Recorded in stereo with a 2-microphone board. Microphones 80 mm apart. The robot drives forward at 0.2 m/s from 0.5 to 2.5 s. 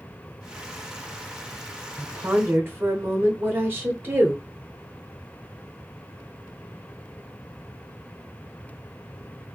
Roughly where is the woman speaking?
Right.